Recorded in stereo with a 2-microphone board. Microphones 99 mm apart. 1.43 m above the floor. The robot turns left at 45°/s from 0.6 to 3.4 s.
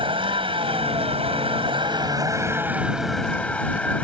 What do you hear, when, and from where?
0.0 s a vehicle: 65° right; by 4.0 s 165° left